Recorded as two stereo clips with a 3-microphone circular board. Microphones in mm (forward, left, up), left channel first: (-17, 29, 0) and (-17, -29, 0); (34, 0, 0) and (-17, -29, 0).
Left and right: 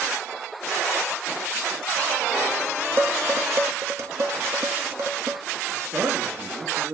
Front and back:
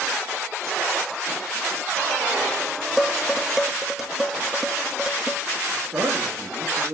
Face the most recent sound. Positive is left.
turn(degrees=-135)